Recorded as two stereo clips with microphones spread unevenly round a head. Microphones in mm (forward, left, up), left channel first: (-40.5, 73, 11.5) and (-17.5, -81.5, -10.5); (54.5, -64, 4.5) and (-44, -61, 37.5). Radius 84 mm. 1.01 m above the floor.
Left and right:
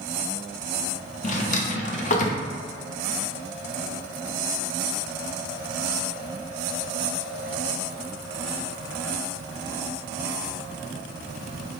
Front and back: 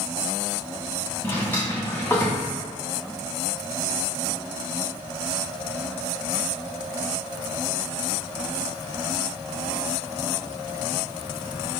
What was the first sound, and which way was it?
A drawer, 90° left.